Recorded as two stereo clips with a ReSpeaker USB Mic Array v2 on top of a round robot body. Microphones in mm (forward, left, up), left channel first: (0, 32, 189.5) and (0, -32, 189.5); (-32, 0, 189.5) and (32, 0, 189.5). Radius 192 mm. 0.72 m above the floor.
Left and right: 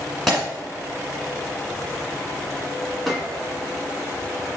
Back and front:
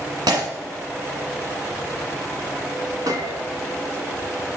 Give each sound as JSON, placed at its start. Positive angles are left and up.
{"t": 0.3, "sound": "breaking glass", "azimuth_deg": 0, "distance_m": 1.3}
{"t": 3.1, "sound": "a gunshot", "azimuth_deg": 0, "distance_m": 1.7}